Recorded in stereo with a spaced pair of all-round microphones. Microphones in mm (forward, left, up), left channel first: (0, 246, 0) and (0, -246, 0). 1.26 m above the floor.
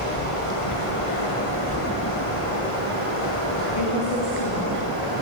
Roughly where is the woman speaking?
Left.